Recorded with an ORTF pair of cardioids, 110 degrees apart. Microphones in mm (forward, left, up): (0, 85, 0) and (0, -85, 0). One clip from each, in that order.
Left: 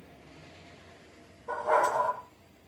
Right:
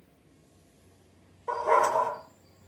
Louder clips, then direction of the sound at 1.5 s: Right 2 dB; 45° right.